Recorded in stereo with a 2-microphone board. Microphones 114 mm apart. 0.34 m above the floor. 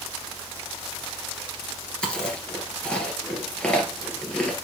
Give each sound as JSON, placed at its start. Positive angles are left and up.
{"t": 2.0, "sound": "chewing", "side_deg": 10, "distance_m": 2.0}